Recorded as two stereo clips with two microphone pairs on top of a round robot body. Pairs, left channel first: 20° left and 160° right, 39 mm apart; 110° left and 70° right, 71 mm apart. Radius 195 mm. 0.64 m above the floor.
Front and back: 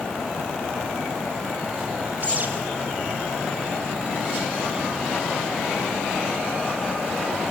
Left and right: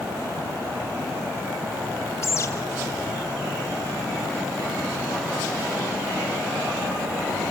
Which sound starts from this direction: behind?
A bird, at 2.2 s.